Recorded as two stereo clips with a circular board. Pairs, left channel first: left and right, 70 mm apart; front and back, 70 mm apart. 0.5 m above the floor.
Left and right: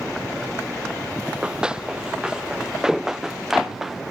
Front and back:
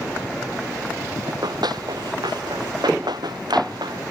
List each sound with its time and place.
1.3 s running footsteps: 170° right; by 4.0 s 175° right